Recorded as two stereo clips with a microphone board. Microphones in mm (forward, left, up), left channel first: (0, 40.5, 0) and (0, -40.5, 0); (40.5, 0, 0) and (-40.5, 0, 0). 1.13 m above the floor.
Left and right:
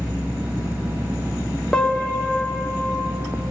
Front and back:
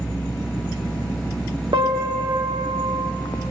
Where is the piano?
170° left, 1.8 m.